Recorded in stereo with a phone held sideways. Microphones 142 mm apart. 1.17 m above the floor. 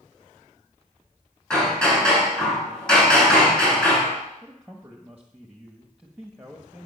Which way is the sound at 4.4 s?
10° right (ahead or behind).